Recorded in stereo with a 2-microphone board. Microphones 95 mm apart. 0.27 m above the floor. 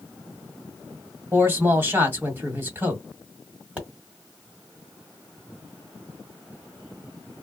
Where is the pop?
15° right (ahead or behind), 1.6 m.